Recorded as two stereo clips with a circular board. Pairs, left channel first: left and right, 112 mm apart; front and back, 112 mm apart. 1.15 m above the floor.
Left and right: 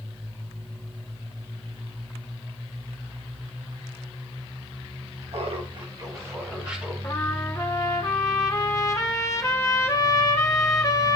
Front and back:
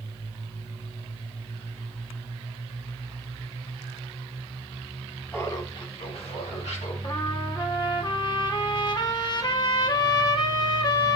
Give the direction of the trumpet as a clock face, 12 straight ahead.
11 o'clock.